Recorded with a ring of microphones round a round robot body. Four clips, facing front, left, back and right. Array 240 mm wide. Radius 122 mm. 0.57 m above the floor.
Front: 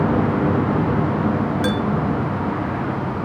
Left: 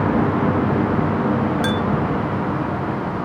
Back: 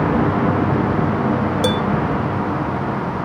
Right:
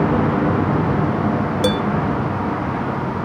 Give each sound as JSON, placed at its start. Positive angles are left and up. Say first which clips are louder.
{"t": 1.6, "sound": "dishes clattering", "louder": "right 3 dB, back 4 dB", "azimuth_deg": -135, "distance_m": 1.8}